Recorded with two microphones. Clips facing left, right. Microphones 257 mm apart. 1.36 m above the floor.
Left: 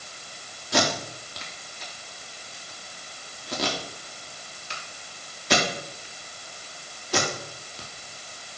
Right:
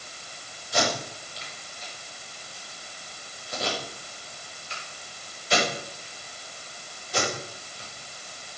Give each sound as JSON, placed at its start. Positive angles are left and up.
{"t": 0.7, "sound": "tape being pulled", "side_deg": 80, "distance_m": 3.5}